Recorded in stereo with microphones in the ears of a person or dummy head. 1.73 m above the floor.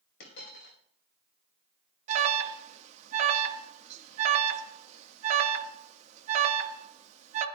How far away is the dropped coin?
About 3 m.